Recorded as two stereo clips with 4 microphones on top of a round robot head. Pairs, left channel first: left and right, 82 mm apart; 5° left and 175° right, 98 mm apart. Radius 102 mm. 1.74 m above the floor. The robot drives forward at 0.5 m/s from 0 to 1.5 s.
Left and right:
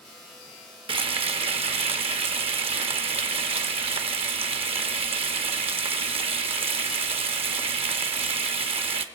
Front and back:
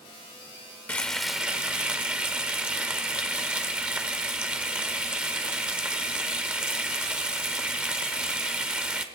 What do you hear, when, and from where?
0.9 s frying: 70° right, 0.7 m; by 9.1 s 95° right, 0.6 m